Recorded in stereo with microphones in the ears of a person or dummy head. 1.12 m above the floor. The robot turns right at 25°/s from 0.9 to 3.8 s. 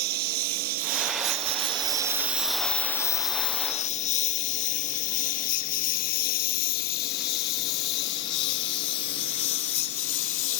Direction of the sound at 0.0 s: 50° right (ahead or behind).